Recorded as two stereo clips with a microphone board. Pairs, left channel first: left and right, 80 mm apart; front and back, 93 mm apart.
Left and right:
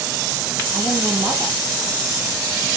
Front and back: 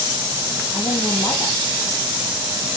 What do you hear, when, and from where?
0.7 s a woman speaking: 10° left, 5 m